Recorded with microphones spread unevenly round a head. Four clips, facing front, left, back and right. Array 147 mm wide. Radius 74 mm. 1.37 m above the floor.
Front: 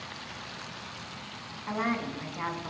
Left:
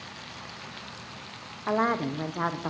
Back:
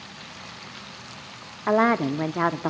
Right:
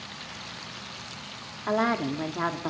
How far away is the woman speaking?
About 0.8 m.